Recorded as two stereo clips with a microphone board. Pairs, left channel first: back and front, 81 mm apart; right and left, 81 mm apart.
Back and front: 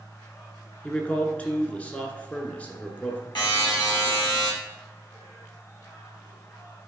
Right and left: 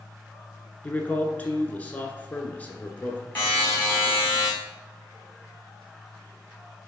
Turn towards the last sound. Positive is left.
turn(degrees=-160)